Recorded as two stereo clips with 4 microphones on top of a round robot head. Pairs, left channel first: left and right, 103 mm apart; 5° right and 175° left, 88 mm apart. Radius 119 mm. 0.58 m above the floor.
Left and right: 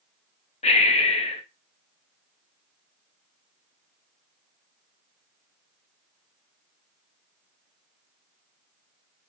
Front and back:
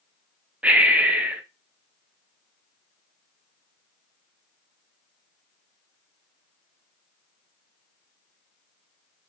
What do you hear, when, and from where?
0.6 s breathing: 100° left, 0.6 m